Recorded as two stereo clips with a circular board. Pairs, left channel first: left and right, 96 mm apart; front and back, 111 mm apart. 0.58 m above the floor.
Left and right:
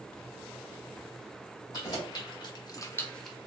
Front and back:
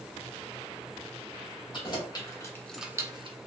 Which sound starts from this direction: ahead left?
Keys jangling, at 1.7 s.